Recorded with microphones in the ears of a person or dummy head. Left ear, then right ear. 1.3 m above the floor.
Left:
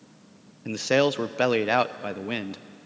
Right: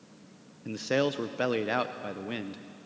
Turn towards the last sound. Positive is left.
turn(degrees=20)  # may be behind; listen again after turning